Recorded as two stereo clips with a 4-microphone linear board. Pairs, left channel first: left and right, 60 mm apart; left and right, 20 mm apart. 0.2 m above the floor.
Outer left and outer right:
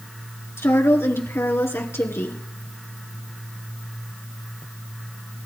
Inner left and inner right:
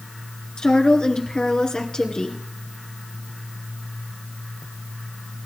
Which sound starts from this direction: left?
A woman speaking, at 0.6 s.